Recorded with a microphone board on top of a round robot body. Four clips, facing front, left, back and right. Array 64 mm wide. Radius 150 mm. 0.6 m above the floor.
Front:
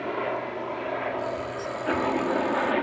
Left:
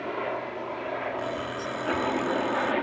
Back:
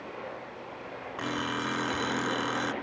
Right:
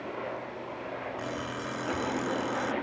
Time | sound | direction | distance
0.0 | a helicopter | 30° left | ?
1.2 | an alarm clock | 175° left | ?